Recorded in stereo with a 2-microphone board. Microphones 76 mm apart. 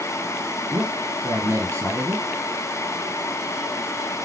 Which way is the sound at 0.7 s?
35° right (ahead or behind).